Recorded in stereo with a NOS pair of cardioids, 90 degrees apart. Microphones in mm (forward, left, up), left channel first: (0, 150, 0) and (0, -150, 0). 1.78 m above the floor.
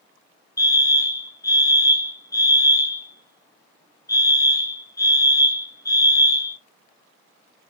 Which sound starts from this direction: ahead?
A fire alarm, at 0.6 s.